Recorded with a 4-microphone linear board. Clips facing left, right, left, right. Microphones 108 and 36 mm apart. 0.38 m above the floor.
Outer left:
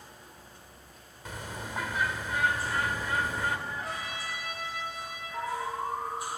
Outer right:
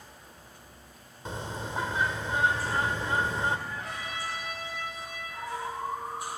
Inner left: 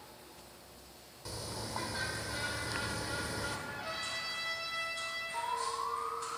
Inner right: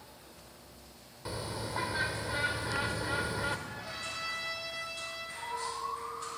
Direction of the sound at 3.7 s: 5° left (ahead or behind).